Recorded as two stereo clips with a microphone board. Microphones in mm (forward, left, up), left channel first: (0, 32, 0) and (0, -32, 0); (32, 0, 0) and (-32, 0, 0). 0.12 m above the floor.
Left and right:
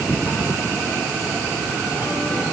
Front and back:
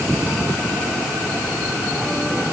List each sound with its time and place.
Only background noise.